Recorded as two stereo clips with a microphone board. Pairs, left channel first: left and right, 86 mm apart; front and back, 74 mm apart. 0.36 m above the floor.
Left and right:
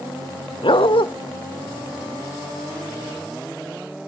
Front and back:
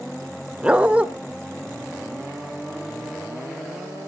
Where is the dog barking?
105° left, 1.0 m.